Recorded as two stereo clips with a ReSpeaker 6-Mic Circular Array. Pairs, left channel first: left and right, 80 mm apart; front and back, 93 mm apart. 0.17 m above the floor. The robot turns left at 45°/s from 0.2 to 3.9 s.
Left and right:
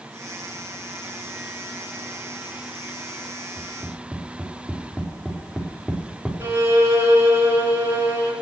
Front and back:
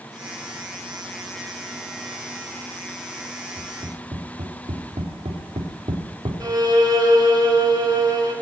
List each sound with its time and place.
3.6 s tapping: 155° right, 4 m; by 6.4 s 170° right, 4 m
6.4 s a violin: 140° right, 3 m